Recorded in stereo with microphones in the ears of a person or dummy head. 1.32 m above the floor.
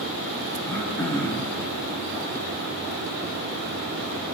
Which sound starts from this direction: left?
Throat clearing, at 0.6 s.